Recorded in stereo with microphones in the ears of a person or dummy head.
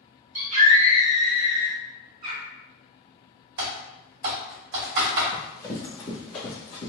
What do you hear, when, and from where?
0.3 s a scream: 35° right (ahead or behind), 1.6 m
2.2 s a bird: 55° right (ahead or behind), 1.3 m
3.6 s typing on a keyboard: 70° right (ahead or behind), 2.0 m
5.3 s running footsteps: 15° left (ahead or behind), 1.7 m; by 6.9 s 25° left (ahead or behind), 1.4 m